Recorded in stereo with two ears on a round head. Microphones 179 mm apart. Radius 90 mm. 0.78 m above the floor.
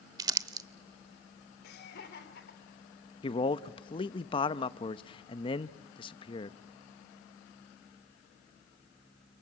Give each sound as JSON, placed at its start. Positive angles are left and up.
{"t": 0.2, "sound": "crumpling", "side_deg": -20, "distance_m": 0.7}
{"t": 1.6, "sound": "laughter", "side_deg": 60, "distance_m": 3.0}
{"t": 3.2, "sound": "a man speaking", "side_deg": 25, "distance_m": 0.7}